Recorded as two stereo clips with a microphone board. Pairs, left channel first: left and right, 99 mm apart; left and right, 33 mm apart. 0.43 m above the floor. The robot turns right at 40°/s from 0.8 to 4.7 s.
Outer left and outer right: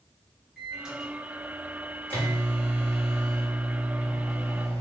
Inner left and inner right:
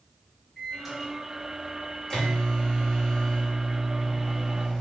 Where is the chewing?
No chewing in this recording.